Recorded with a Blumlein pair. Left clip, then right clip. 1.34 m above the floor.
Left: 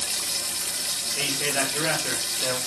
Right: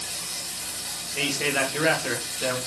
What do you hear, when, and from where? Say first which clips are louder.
0.0 s running water: left 5 dB; 25° left, 1.3 m
1.2 s a man speaking: right 3 dB; 15° right, 2 m